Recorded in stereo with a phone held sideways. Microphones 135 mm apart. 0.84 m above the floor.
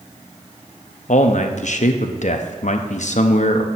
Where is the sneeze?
I don't hear a sneeze.